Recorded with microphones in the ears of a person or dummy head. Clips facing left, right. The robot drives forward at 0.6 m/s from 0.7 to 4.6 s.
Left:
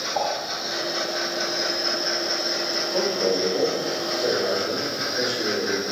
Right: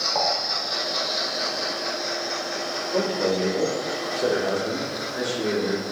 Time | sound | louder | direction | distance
0.1 | dishes clattering | even | 65° right (ahead or behind) | 4 m
2.9 | a man speaking | even | 40° right (ahead or behind) | 3.5 m